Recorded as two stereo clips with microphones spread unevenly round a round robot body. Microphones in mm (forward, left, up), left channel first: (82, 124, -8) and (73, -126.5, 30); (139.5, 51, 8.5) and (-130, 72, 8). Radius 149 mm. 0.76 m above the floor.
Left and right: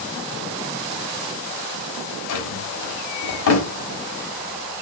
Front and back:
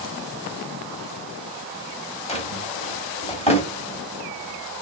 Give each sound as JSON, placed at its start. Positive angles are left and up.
{"t": 2.3, "sound": "a drawer", "azimuth_deg": 65, "distance_m": 1.1}